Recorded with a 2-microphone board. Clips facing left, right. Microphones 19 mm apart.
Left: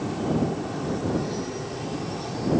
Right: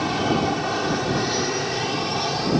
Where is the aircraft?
55° right (ahead or behind); by 2.6 s 50° right (ahead or behind).